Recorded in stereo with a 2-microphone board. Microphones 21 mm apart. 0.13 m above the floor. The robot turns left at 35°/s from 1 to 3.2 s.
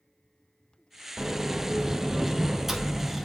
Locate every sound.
1.2 s a sliding door: 105° right, 0.6 m; by 3.2 s 175° right, 0.6 m